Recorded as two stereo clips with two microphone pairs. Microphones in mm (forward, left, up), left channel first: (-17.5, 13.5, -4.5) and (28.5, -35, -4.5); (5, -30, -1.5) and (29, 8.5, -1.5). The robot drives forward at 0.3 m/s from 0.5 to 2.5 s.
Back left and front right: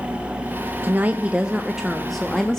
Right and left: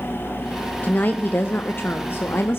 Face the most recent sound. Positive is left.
turn(degrees=-145)